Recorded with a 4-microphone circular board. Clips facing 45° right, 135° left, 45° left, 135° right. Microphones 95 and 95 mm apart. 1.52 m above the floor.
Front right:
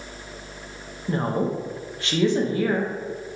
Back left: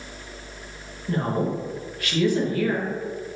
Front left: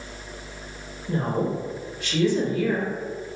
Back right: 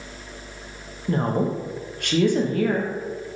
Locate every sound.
1.1 s a woman speaking: 110° right, 0.6 m